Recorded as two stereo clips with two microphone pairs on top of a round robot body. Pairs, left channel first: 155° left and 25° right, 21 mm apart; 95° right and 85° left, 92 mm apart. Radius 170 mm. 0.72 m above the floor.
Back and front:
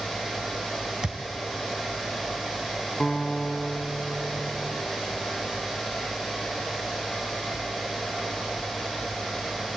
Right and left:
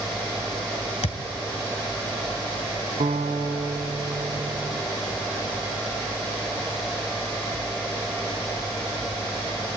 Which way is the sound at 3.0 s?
75° left.